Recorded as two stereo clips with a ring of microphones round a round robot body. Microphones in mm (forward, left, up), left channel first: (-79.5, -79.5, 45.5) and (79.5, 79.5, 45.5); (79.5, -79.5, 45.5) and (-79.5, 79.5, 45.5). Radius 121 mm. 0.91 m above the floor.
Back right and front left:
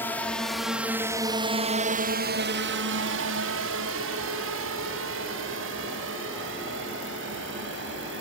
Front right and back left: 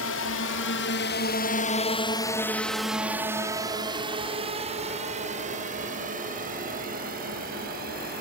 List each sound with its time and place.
0.0 s a drone: 55° right; by 8.2 s 85° left